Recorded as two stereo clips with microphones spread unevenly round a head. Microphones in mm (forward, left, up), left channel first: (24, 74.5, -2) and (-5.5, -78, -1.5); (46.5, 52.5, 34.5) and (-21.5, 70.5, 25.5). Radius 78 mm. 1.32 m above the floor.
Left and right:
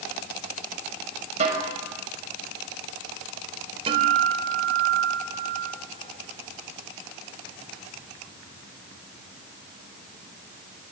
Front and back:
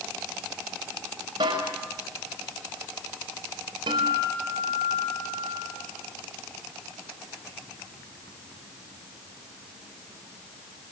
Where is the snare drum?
150° right, 6 m.